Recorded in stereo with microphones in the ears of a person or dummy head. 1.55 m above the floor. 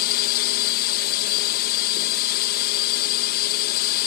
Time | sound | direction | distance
0.0 | a drone | 50° left (ahead or behind) | ?